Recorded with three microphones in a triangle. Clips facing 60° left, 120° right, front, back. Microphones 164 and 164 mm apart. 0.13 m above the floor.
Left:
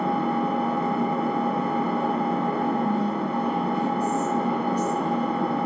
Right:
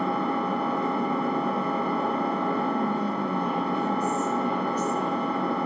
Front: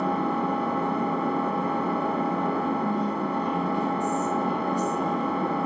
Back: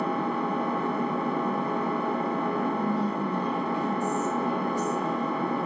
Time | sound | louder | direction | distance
0.0 | an engine running | left 2 dB, front 2 dB | 20° left | 1.6 m
2.6 | whispering | left 2 dB, front 1 dB | 50° left | 1.7 m